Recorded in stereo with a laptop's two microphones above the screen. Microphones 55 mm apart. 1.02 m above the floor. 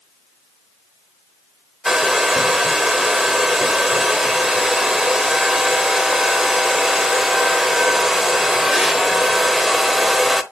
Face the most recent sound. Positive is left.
turn(degrees=-5)  # may be behind; listen again after turning